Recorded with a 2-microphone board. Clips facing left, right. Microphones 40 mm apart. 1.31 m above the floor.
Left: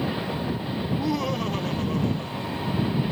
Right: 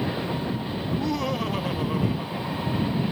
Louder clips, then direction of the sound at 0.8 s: Left 1 dB; 10° left (ahead or behind).